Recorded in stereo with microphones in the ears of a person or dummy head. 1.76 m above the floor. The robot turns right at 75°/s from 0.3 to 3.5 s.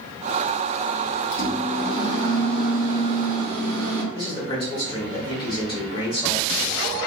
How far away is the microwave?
About 0.7 m.